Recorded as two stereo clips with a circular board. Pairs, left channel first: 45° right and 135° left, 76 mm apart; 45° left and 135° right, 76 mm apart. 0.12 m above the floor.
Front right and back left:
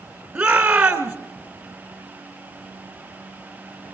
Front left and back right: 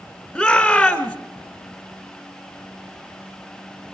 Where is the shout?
105° left, 1.0 m.